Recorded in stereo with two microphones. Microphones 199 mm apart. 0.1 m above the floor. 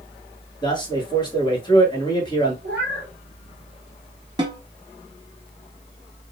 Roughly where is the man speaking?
Left.